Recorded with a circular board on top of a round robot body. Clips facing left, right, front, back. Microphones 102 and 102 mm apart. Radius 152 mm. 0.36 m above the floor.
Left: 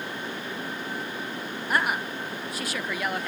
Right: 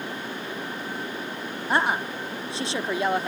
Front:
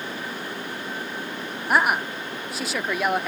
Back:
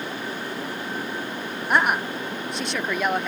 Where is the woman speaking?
80° right.